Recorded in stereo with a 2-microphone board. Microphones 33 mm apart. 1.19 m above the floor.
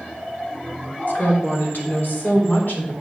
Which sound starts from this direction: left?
A woman speaking, at 1.1 s.